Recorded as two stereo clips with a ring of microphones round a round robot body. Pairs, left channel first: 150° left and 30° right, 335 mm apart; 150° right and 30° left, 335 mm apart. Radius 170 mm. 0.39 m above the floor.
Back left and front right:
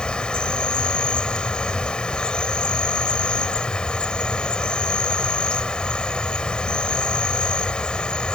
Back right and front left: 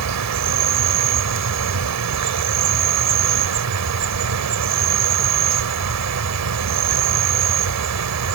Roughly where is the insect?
Ahead left.